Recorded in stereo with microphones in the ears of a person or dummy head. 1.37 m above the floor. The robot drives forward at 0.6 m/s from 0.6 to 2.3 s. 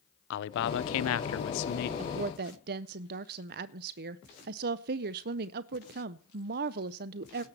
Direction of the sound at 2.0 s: 45° right (ahead or behind).